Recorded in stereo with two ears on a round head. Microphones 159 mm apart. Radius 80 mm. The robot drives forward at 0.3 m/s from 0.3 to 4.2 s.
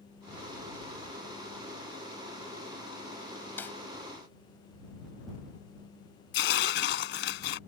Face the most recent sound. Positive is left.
turn(degrees=70)  # may be behind; listen again after turning